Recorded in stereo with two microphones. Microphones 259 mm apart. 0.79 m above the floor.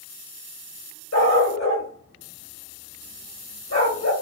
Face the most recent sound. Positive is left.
turn(degrees=80)